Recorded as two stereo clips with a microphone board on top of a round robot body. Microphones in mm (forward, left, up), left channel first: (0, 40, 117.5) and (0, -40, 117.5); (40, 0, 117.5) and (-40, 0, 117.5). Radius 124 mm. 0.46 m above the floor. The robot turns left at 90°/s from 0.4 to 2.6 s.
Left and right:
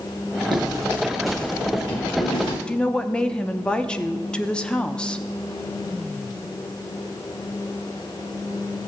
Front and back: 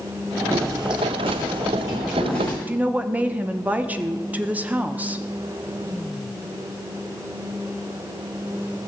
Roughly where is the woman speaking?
Behind left.